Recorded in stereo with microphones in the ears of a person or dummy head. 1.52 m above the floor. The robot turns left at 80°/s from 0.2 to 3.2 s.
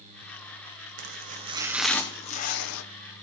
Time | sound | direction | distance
1.0 | chopping | 110° right | 0.6 m